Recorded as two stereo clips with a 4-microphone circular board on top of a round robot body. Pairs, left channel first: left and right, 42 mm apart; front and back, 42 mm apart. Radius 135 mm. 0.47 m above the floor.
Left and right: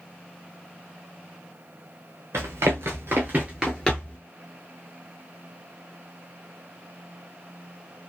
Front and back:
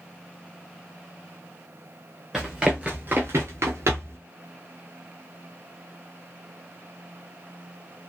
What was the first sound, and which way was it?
Running footsteps, 95° right.